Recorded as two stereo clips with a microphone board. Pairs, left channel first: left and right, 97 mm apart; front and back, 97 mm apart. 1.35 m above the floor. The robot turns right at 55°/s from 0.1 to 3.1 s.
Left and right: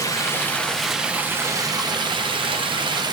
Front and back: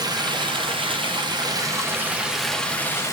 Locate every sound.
0.0 s running water: 140° left, 0.8 m; by 3.1 s 55° right, 0.8 m